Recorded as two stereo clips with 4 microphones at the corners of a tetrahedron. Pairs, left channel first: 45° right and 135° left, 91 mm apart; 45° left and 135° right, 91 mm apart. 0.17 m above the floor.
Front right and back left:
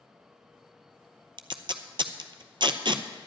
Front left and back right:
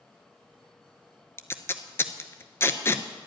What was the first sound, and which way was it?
Tape being pulled, 105° left.